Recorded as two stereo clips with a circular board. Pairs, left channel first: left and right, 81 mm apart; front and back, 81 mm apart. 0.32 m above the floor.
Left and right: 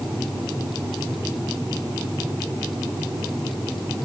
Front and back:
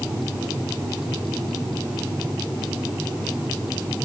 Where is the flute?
I don't hear a flute.